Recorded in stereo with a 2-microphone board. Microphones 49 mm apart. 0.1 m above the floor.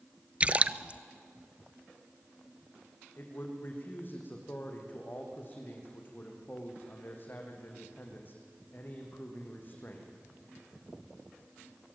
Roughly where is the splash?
Right.